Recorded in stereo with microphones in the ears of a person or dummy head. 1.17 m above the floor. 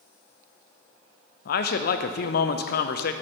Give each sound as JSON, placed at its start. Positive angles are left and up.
{"t": 1.4, "sound": "a man speaking", "side_deg": 55, "distance_m": 0.6}